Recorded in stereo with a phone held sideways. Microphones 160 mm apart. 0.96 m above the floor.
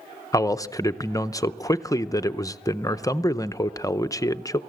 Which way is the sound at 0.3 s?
20° left (ahead or behind).